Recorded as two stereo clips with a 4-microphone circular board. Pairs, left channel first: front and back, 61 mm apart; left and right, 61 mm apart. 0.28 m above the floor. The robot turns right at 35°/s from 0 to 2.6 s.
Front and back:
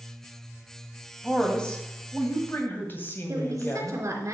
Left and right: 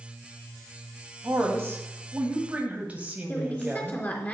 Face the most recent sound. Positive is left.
turn(degrees=150)